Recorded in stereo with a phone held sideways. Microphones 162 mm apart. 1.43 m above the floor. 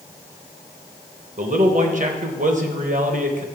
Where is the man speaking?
50° right (ahead or behind), 0.9 m.